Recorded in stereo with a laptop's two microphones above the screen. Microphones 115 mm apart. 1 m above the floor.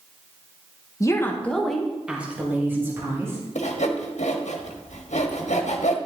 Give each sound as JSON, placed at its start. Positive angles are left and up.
{"t": 1.0, "sound": "a woman speaking", "side_deg": 30, "distance_m": 0.9}
{"t": 3.5, "sound": "sawing", "side_deg": 80, "distance_m": 1.3}